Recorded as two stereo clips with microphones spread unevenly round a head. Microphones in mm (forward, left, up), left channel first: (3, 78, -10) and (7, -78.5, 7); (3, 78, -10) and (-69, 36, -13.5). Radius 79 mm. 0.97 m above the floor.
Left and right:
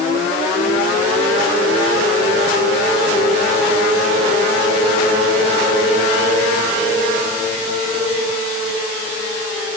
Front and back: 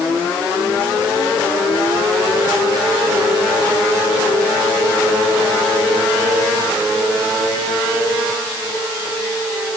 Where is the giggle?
No giggle in this recording.